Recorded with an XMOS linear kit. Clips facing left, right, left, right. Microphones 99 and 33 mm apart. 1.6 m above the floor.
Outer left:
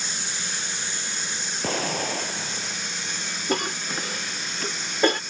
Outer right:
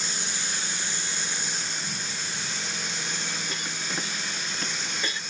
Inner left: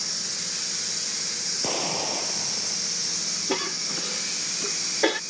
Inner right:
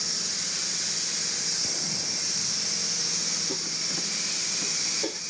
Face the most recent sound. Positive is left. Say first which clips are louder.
# outer left 7 dB, inner left 5 dB
turn(degrees=60)  # may be behind; listen again after turning